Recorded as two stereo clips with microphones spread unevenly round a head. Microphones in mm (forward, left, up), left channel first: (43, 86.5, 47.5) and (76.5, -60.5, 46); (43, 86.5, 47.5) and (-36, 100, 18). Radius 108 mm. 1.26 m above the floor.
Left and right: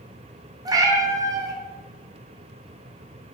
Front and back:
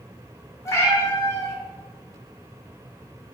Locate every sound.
0.7 s a cat meowing: 15° right, 0.6 m